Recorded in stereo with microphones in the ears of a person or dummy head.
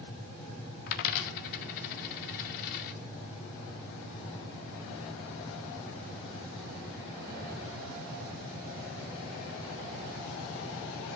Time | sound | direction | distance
0.9 | a dropped coin | 45° left (ahead or behind) | 0.7 m